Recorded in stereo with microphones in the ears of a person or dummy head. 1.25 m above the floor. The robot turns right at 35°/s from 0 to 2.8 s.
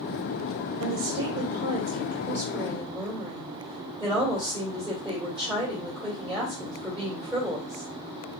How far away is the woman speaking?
About 1.9 m.